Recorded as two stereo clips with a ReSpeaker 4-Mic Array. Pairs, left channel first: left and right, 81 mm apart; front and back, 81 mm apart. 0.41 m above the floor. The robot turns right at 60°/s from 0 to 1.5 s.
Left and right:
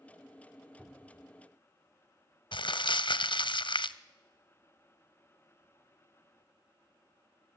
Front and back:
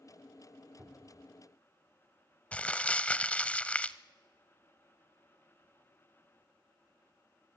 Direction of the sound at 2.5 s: 75° left.